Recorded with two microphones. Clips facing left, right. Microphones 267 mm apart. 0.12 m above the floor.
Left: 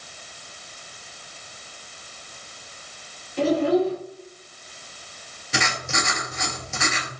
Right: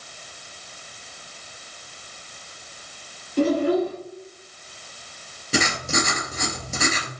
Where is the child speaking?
45° right (ahead or behind), 2.5 m.